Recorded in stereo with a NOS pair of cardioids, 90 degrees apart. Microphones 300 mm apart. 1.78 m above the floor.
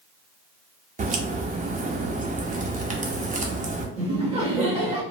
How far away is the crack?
About 0.6 m.